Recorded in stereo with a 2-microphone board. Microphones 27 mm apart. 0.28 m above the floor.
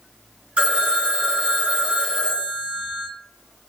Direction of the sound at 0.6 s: 40° right (ahead or behind).